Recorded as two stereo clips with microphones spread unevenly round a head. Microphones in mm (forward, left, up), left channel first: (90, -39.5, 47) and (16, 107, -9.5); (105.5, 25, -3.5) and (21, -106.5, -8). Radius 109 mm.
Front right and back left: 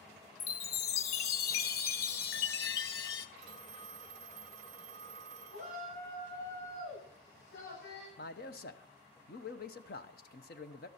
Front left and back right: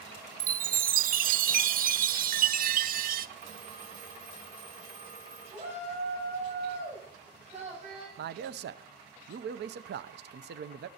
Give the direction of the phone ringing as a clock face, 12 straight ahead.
6 o'clock.